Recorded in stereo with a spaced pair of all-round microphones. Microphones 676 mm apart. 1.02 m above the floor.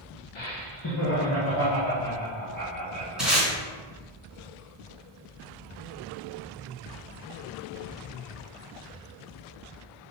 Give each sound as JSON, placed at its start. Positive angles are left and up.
{"t": 0.3, "sound": "laughter", "side_deg": 45, "distance_m": 0.7}
{"t": 3.2, "sound": "tape being pulled", "side_deg": 0, "distance_m": 2.5}